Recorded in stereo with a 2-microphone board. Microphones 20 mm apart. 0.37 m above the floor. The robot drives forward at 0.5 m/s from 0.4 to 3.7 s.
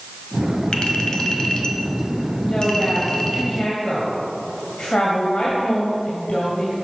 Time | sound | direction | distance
0.7 | a clink | 50° left (ahead or behind) | 1.4 m
2.4 | a woman speaking | 50° left (ahead or behind) | 2.5 m